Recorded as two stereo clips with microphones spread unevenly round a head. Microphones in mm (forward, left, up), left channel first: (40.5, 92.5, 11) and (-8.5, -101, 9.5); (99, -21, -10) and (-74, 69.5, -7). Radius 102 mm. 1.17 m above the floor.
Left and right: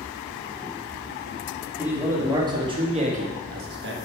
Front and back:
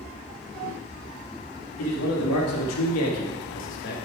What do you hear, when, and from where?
1.8 s a man speaking: 25° right, 2 m; by 4.0 s 75° right, 1.3 m